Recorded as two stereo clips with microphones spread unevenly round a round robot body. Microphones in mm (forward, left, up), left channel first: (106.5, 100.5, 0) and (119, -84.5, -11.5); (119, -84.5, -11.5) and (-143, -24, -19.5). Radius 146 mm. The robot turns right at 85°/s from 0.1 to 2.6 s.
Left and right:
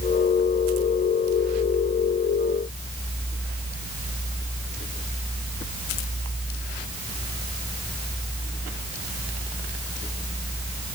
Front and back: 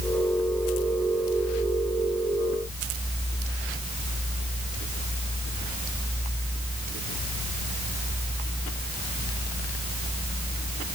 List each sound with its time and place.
Only background noise.